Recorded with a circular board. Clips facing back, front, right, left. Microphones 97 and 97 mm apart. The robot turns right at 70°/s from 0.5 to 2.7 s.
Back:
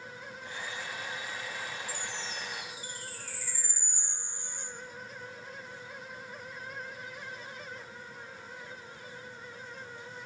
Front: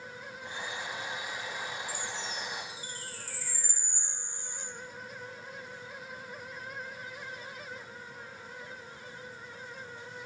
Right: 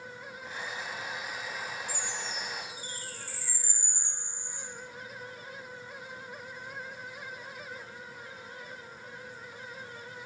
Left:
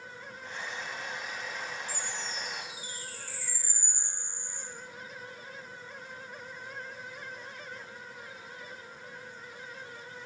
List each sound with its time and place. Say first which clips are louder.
1.9 s a chime: front 1 dB, right 1 dB; 100° right, 1.0 m; by 4.6 s 45° right, 1.0 m